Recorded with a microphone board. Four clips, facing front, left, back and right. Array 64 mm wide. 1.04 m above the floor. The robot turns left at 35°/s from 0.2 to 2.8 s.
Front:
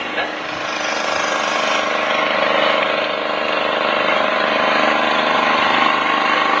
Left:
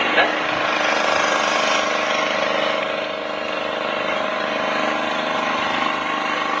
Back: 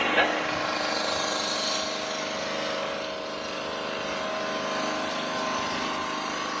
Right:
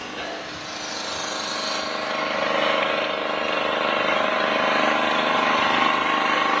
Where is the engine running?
90° left, 1.3 m; by 6.6 s 5° right, 1.3 m.